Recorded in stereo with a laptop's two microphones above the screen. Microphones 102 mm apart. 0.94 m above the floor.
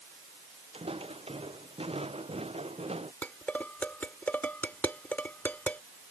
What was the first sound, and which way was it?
Footsteps, 65° right (ahead or behind).